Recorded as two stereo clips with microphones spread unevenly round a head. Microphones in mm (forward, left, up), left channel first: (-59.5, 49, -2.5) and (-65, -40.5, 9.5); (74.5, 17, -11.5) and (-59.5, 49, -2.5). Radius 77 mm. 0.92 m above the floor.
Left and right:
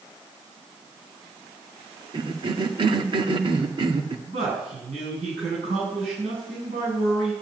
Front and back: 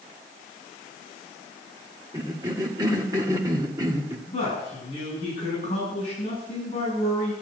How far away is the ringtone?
I don't hear a ringtone.